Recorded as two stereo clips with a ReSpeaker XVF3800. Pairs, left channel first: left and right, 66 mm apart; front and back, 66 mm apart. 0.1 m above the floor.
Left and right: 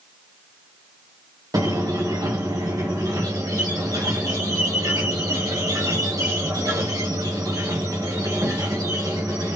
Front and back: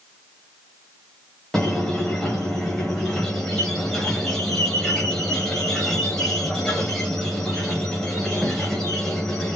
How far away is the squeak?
About 1.6 m.